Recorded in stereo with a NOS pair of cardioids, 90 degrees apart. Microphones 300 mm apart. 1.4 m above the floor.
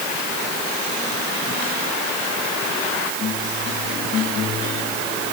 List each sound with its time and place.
Only background noise.